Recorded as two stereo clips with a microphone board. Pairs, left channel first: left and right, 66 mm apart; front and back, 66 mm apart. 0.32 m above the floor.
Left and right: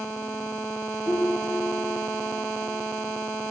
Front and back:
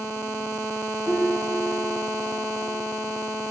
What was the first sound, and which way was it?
A piano, 75° left.